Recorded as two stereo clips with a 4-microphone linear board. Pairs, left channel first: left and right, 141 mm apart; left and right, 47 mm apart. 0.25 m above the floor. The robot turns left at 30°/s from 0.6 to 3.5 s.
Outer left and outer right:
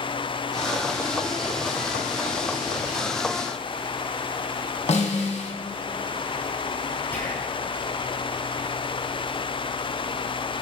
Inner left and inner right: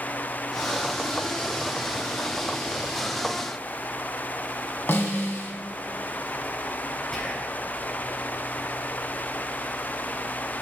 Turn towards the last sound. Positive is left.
turn(degrees=15)  # may be behind; listen again after turning